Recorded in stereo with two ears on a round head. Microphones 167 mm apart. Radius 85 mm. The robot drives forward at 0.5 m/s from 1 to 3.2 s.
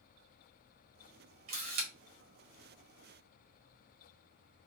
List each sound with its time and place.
1.5 s a camera shutter: 45° right (ahead or behind), 2.0 m; by 1.9 s 50° right (ahead or behind), 1.9 m